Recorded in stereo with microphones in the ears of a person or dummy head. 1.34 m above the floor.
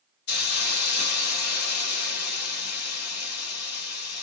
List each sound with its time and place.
0.3 s a hiss: 60° left (ahead or behind), 1.2 m